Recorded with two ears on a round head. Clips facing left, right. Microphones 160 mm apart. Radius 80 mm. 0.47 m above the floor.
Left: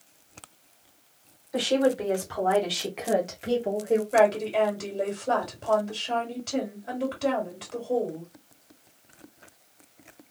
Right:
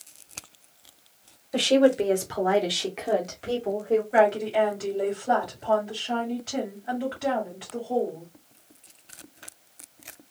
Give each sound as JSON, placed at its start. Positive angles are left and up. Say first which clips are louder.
{"t": 1.5, "sound": "a woman speaking", "louder": "right 4 dB", "side_deg": -35, "distance_m": 1.3}
{"t": 4.1, "sound": "a woman speaking", "louder": "even", "side_deg": 35, "distance_m": 1.9}